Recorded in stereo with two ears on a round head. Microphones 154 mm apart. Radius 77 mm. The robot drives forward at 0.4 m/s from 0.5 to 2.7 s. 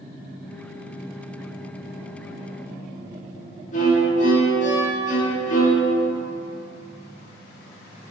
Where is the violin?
45° left (ahead or behind), 1.6 m.